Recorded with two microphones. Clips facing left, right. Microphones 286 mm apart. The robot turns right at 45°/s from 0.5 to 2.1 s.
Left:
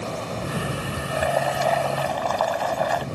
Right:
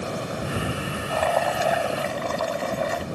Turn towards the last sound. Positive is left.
turn(degrees=-155)